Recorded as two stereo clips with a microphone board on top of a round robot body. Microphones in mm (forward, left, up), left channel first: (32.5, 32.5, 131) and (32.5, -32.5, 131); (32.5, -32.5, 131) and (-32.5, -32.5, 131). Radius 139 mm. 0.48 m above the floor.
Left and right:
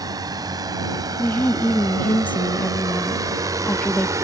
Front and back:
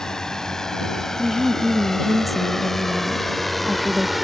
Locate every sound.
0.0 s a drone: 80° right; by 4.2 s 90° right
1.2 s a woman speaking: 90° left